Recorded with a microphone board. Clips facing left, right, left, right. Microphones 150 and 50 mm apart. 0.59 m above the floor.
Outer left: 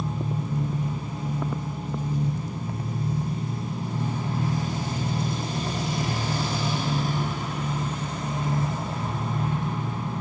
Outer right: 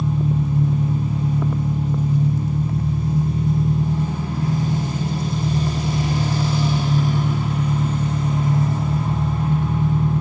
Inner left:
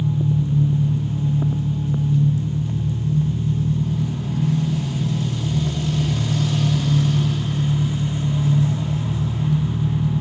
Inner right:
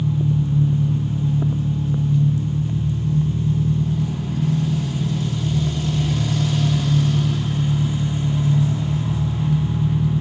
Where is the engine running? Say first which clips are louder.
Outer right 8 dB, even; 70° right (ahead or behind), 6.5 m.